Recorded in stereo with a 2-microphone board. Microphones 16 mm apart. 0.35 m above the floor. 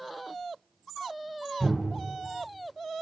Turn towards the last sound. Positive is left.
turn(degrees=35)  # may be behind; listen again after turning